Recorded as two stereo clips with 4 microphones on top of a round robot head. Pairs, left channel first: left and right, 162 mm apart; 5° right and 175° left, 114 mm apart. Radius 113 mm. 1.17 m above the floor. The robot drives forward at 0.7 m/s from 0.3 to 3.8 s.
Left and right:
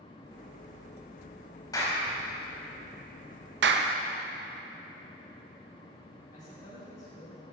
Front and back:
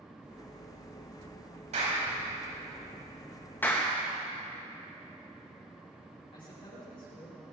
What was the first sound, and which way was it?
A clap, 160° left.